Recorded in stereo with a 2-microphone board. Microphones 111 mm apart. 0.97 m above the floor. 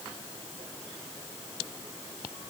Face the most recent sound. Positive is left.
No sound to turn to.